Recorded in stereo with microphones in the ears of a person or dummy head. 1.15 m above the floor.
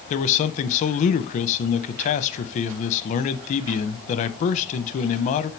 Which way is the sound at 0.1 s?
40° left (ahead or behind).